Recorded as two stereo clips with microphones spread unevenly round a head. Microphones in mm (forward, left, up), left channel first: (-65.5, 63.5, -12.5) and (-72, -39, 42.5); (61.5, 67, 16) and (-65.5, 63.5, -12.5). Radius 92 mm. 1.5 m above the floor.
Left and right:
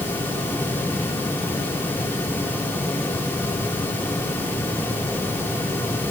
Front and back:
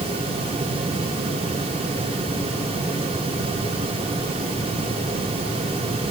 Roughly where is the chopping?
I don't hear chopping.